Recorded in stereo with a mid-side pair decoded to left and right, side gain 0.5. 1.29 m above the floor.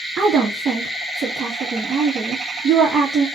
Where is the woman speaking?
50° right, 1.3 m.